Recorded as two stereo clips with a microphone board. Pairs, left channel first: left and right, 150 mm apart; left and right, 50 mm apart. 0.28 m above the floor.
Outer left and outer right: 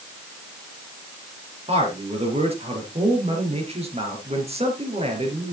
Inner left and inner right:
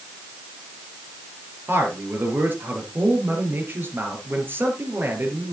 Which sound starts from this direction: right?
A man speaking, at 1.7 s.